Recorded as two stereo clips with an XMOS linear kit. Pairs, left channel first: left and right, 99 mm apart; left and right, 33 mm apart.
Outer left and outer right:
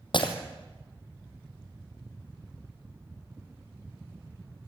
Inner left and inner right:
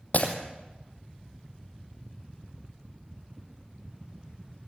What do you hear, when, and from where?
0.1 s breaking glass: 55° left (ahead or behind), 3 m